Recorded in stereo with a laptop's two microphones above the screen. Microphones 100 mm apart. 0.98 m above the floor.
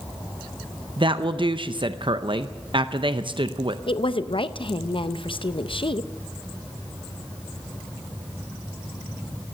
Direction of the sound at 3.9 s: 60° left (ahead or behind).